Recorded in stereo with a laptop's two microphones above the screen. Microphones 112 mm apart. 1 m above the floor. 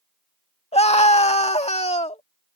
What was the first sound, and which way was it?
A scream, 70° left (ahead or behind).